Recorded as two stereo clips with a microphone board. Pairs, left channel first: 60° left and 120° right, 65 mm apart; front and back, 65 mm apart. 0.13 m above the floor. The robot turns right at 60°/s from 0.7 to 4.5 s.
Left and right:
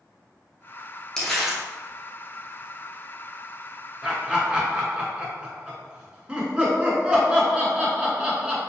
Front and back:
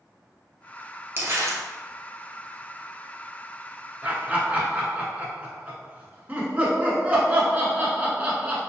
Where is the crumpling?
135° left, 1.0 m; by 1.6 s 165° left, 1.0 m.